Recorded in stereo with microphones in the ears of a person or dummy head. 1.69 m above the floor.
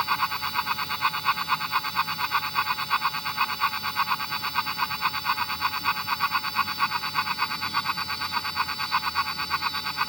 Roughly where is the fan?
Centre.